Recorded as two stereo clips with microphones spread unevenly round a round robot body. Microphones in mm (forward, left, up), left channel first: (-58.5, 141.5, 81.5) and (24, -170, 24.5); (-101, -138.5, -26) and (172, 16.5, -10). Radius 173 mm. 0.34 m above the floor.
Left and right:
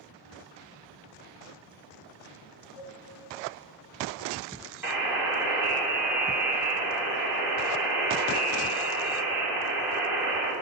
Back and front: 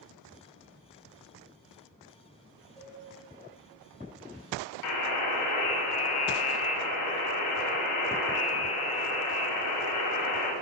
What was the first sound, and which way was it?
A cowbell, 120° left.